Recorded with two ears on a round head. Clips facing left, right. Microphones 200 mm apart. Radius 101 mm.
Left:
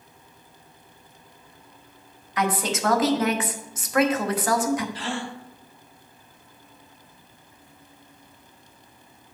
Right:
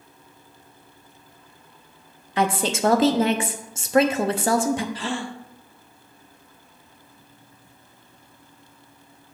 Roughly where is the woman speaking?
Right.